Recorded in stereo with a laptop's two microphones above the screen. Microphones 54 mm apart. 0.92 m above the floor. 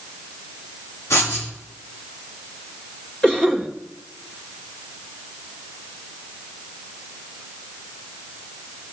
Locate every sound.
1.1 s writing: 80° left, 5 m
3.2 s a cough: 15° left (ahead or behind), 2.0 m